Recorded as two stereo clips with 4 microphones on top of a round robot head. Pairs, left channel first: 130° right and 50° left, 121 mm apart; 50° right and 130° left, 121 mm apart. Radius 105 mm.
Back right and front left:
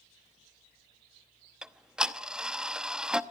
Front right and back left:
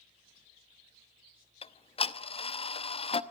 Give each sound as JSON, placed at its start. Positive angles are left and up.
{"t": 1.6, "sound": "ticking", "azimuth_deg": -35, "distance_m": 1.0}